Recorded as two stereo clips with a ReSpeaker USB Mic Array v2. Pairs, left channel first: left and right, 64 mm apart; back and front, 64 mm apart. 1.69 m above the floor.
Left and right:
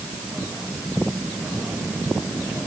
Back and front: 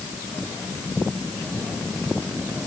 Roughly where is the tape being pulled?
No tape being pulled in this recording.